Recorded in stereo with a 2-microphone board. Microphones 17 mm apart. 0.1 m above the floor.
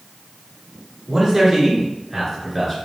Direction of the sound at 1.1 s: 30° right (ahead or behind).